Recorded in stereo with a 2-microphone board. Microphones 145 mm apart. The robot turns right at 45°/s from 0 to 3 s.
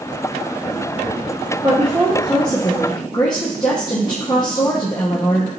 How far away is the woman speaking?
About 0.7 m.